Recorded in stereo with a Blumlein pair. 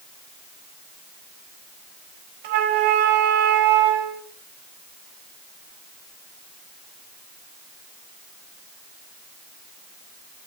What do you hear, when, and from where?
2.4 s a flute: 55° right, 5 m